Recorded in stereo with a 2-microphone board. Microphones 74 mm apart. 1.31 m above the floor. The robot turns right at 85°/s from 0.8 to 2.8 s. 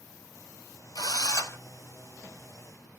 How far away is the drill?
About 0.8 m.